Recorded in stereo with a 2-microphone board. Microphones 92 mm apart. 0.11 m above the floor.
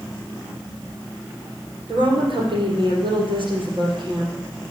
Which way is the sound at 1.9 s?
65° right (ahead or behind).